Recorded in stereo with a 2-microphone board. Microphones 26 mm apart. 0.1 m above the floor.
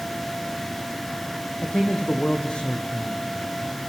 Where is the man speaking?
45° left (ahead or behind), 4 m.